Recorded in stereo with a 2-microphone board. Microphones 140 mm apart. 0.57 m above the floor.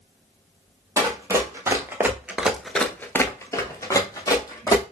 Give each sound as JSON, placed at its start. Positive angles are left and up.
{"t": 1.0, "sound": "running footsteps", "side_deg": -20, "distance_m": 1.2}